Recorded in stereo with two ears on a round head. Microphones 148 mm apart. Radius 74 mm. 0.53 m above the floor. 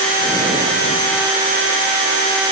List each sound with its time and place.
Only background noise.